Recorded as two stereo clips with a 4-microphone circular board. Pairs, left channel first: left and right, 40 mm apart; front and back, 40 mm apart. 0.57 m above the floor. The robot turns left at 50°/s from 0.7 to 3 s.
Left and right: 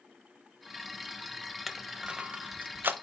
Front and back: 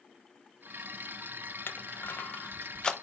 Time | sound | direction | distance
1.7 | crushing | 5° right | 0.6 m